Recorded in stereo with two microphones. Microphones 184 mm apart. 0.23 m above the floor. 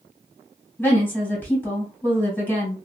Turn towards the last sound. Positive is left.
turn(degrees=10)  # may be behind; listen again after turning